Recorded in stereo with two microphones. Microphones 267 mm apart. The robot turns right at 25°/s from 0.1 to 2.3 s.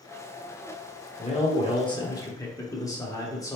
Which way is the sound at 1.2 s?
25° left (ahead or behind).